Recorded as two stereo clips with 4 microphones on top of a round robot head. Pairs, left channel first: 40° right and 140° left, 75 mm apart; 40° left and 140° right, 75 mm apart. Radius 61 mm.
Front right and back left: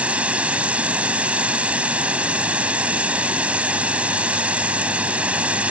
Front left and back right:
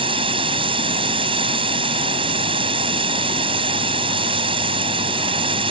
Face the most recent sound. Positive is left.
turn(degrees=-145)